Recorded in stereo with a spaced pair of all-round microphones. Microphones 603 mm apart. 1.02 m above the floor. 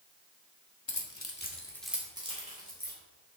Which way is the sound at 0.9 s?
45° left (ahead or behind).